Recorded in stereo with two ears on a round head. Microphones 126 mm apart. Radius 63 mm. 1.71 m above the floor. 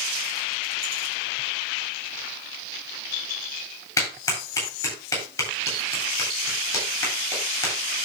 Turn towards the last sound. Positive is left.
turn(degrees=20)  # may be behind; listen again after turning